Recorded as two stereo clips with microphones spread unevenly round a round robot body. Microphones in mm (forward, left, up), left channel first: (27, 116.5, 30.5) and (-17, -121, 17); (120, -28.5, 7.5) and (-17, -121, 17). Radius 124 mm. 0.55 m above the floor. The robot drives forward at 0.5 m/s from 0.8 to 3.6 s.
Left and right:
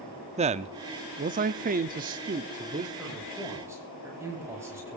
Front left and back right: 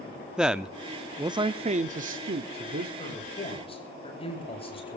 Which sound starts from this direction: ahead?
A man speaking, at 3.0 s.